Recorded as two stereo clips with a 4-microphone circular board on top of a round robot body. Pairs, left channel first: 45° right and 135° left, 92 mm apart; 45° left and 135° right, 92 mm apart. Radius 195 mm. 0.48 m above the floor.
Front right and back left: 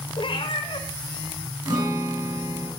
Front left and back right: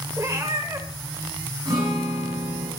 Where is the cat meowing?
80° right, 1.3 m.